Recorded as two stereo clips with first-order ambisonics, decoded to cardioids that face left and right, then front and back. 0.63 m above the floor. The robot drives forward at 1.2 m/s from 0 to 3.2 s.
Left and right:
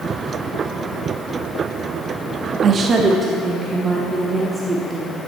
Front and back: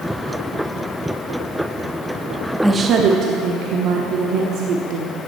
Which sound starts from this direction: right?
A woman speaking, at 2.6 s.